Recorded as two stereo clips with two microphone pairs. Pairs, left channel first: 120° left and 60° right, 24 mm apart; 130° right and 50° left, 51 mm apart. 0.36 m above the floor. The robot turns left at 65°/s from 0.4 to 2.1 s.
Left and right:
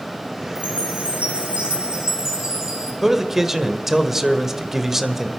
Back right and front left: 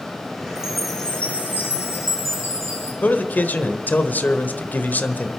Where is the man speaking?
120° right, 1.1 m.